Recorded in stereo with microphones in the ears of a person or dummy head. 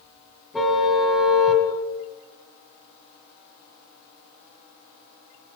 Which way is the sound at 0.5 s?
Centre (ahead or behind).